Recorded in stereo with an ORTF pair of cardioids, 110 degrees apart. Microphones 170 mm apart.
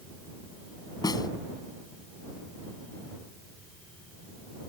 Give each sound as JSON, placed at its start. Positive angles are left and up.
{"t": 1.0, "sound": "a snare drum", "azimuth_deg": 20}